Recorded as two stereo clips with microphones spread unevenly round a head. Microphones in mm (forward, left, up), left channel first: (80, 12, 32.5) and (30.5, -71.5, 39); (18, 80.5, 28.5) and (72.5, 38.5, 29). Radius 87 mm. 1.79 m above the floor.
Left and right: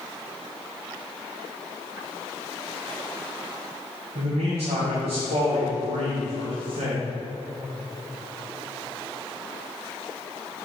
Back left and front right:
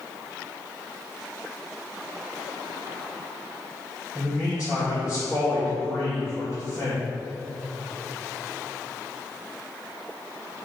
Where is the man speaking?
120° right, 1.8 m.